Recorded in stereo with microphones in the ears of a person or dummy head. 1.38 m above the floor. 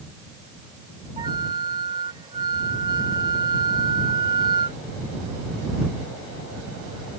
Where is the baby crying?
I don't hear a baby crying.